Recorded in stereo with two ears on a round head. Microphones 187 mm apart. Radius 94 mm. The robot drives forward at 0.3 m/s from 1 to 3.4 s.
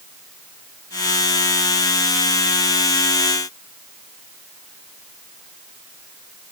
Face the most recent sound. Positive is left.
No sound to turn to.